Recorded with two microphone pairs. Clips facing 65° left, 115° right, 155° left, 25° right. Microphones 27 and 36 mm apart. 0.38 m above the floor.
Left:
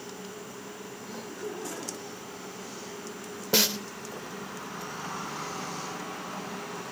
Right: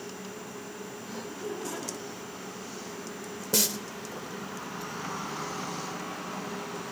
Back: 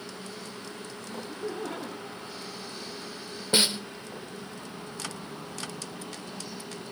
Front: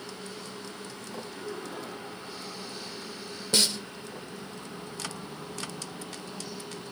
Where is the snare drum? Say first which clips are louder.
Left 4 dB, back 2 dB; 105° left, 0.6 m.